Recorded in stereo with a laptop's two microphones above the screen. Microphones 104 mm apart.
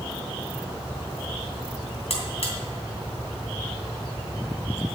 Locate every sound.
2.1 s a buzzer: 75° left (ahead or behind), 2.5 m